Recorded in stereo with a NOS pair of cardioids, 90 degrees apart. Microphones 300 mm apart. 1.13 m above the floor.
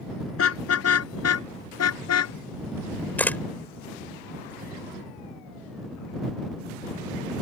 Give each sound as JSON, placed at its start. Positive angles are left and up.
{"t": 0.4, "sound": "a car horn", "azimuth_deg": 50}
{"t": 3.2, "sound": "a camera shutter", "azimuth_deg": 5}